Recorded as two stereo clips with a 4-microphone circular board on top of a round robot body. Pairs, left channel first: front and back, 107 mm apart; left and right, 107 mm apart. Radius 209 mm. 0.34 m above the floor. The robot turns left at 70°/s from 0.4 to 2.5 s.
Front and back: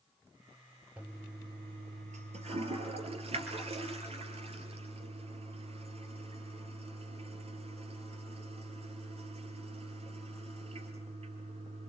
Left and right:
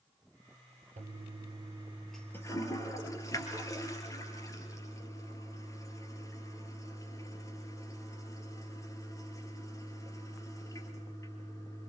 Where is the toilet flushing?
100° right, 3 m; by 11.9 s 150° left, 3 m.